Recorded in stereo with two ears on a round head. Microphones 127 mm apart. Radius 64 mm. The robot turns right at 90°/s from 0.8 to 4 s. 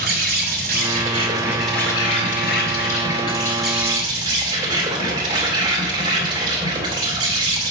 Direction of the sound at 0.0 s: 75° right.